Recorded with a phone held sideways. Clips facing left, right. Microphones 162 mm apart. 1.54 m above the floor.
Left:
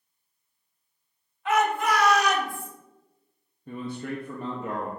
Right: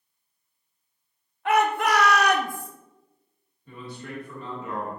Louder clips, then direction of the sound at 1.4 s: Right 2 dB; 60° right (ahead or behind).